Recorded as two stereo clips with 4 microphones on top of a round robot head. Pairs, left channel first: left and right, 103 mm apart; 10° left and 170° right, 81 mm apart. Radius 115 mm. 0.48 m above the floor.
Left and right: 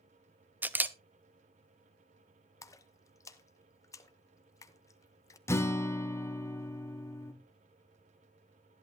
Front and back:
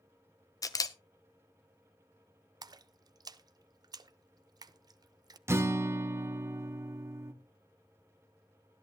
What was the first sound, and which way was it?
A camera shutter, 20° right.